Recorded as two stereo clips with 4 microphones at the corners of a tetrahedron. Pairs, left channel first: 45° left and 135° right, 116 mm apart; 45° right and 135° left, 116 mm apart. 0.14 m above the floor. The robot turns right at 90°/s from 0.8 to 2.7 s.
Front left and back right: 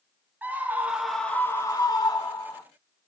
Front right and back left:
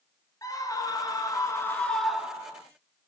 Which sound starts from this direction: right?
A scream, at 0.4 s.